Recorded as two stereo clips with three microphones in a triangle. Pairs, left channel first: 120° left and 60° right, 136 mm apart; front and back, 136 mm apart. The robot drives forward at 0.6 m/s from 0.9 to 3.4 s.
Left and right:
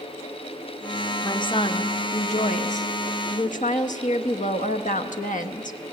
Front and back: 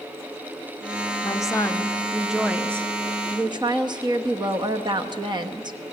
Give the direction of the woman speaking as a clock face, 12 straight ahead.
10 o'clock.